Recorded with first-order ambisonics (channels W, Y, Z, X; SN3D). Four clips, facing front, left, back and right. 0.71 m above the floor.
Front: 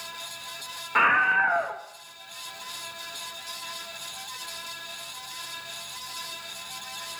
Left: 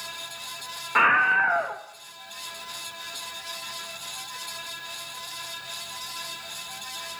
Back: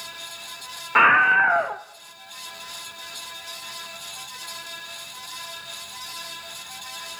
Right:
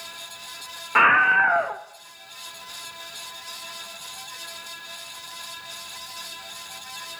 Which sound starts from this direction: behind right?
A scream, at 0.9 s.